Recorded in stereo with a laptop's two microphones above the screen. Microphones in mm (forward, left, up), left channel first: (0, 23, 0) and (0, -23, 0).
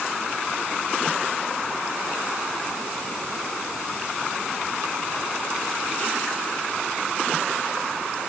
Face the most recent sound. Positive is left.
No sound to turn to.